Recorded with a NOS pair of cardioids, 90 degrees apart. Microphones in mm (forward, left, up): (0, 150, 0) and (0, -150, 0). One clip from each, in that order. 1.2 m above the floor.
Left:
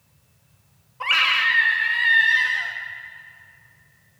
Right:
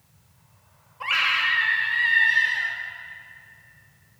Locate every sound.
1.0 s a scream: 25° left, 1.6 m